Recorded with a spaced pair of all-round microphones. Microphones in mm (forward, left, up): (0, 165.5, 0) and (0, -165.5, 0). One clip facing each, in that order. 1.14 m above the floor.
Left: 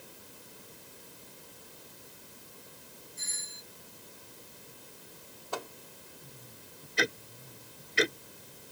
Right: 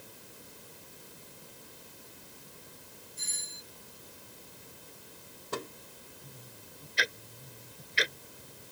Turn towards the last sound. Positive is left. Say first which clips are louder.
# left 7 dB
turn(degrees=60)  # may be behind; listen again after turning